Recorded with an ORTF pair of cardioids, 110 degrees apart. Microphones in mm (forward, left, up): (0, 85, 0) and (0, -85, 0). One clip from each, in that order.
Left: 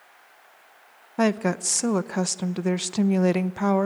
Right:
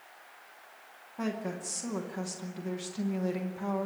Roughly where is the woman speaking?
Left.